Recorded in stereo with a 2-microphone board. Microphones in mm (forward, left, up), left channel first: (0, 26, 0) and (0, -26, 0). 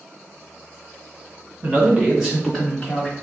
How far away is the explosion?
No explosion in this recording.